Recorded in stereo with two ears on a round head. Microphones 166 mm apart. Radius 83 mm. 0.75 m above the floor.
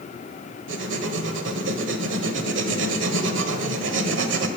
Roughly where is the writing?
Right.